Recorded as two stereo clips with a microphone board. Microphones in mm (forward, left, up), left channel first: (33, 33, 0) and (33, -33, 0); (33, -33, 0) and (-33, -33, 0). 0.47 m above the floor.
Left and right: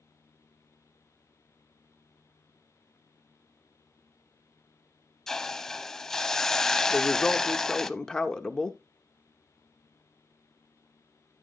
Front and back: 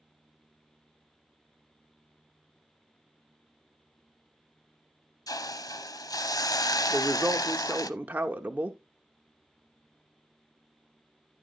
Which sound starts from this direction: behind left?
A woman speaking, at 6.9 s.